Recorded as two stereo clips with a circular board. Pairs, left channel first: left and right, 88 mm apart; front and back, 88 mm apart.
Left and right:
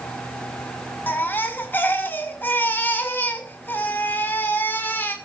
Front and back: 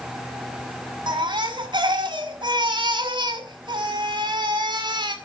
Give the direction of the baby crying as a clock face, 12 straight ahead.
7 o'clock.